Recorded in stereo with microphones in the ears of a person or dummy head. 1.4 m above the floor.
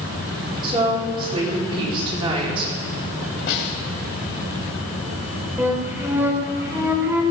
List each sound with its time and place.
0.6 s a woman speaking: 30° right (ahead or behind), 4.5 m
3.5 s a snare drum: 60° left (ahead or behind), 3 m
5.6 s a flute: 10° right (ahead or behind), 1.9 m